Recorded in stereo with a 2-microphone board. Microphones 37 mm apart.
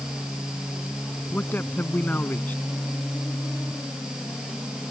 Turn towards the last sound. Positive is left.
turn(degrees=60)  # may be behind; listen again after turning